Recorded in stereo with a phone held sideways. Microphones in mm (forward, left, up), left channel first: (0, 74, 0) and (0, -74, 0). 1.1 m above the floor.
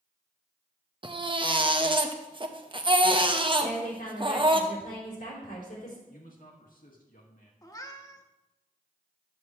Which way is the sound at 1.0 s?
35° right (ahead or behind).